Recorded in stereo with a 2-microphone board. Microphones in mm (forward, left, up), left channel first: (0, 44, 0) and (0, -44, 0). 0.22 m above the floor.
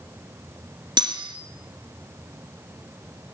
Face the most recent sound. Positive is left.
turn(degrees=-60)  # may be behind; listen again after turning